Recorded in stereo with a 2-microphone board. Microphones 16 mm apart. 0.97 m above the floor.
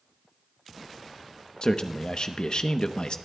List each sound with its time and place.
1.6 s a man speaking: 50° left (ahead or behind), 0.9 m